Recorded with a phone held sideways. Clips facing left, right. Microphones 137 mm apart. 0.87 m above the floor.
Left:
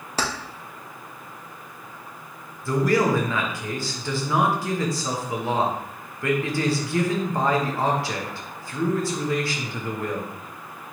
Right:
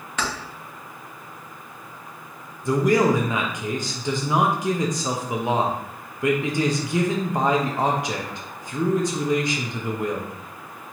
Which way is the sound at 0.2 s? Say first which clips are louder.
Left 1 dB; 35° left (ahead or behind).